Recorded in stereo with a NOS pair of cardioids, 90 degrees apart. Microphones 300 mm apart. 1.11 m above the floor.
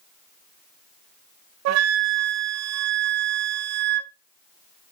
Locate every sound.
1.6 s a flute: 70° right, 0.5 m